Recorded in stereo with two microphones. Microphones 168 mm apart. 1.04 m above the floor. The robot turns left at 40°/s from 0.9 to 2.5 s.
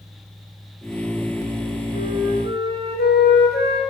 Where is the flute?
65° left (ahead or behind), 1.2 m; by 3.8 s 85° left, 1.2 m.